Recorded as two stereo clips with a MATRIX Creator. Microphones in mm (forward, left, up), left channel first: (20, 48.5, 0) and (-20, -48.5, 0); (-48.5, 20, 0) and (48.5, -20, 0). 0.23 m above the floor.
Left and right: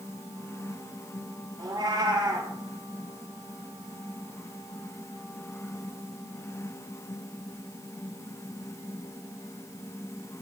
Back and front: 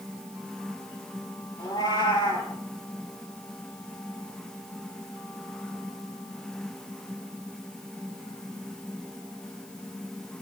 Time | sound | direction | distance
1.6 | a cat meowing | 155° right | 3 m